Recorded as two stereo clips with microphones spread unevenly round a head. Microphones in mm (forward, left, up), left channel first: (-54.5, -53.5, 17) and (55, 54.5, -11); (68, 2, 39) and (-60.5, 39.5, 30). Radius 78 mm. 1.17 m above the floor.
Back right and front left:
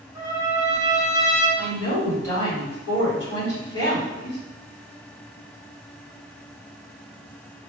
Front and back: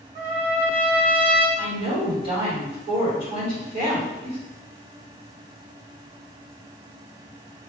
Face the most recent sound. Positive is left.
turn(degrees=-145)